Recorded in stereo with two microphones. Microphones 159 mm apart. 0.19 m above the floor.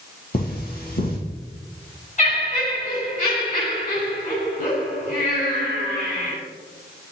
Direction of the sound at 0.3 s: 60° left (ahead or behind).